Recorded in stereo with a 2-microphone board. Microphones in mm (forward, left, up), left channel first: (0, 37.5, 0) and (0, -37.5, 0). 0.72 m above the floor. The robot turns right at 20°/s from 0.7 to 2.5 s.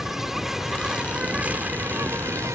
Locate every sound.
0.0 s an insect: 175° right; by 2.5 s 140° right